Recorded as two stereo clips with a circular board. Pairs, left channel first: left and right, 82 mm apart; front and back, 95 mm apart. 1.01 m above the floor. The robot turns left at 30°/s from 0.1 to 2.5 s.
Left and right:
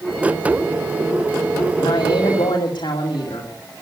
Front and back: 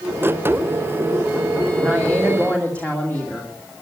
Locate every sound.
1.8 s a woman speaking: 95° left, 2 m; by 3.5 s 75° left, 2 m